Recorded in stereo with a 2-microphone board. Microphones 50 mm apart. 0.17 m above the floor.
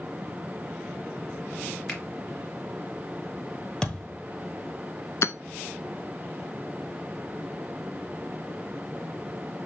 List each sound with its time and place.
1.9 s a finger snap: 20° left (ahead or behind), 2 m
3.8 s a thud: 15° left (ahead or behind), 1.4 m
5.2 s hammering: 60° left (ahead or behind), 0.6 m